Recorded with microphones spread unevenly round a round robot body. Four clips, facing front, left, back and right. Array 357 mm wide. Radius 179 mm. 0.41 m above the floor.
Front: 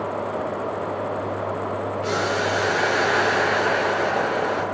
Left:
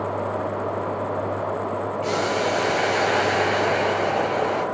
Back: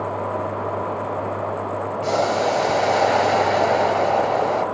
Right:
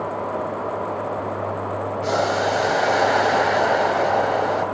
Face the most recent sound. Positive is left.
turn(degrees=-155)